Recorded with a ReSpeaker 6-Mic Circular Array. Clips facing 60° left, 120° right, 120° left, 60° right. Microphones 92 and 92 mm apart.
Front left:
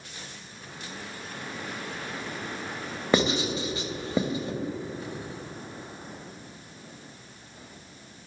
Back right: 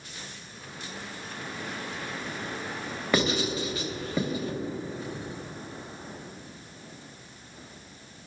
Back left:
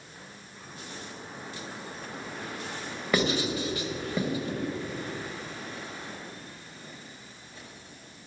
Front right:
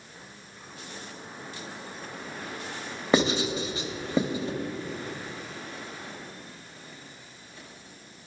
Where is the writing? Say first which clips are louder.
Front left 2 dB, front right 3 dB; straight ahead, 0.9 m.